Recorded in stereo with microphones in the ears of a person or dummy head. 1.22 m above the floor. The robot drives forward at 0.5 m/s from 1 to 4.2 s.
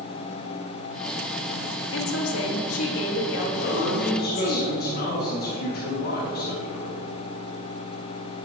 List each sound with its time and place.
1.9 s a woman speaking: 85° left, 1.5 m; by 4.6 s 55° left (ahead or behind), 1.8 m
3.6 s a man speaking: 60° left (ahead or behind), 1.7 m; by 6.9 s 50° left (ahead or behind), 1.9 m